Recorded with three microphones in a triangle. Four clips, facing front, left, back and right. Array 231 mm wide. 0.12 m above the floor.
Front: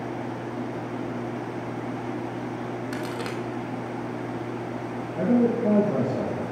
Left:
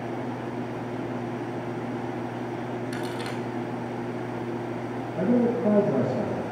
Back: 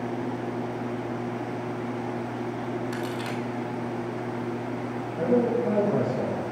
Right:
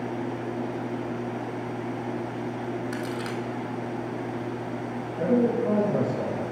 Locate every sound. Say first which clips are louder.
2.9 s a crack: even, even; 15° left, 1.1 m
5.2 s a man speaking: even, front 1 dB; 40° left, 3 m